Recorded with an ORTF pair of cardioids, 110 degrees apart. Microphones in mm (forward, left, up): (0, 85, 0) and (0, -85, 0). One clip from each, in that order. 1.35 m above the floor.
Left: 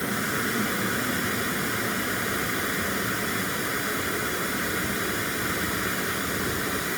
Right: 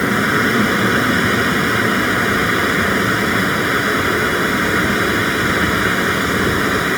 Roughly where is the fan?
Ahead right.